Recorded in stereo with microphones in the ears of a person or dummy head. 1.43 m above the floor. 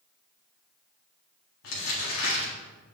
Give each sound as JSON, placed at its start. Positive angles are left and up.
{"t": 1.6, "sound": "crumpling", "side_deg": 70, "distance_m": 2.0}